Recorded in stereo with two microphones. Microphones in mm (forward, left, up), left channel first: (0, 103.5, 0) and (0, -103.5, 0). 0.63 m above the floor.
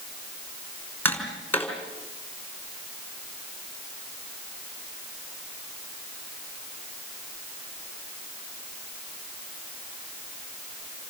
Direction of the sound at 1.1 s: 10° left (ahead or behind).